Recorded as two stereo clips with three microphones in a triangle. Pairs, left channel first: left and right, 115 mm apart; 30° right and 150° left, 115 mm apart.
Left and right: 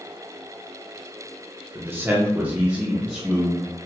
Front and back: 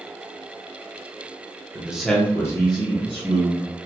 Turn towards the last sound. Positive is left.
turn(degrees=-5)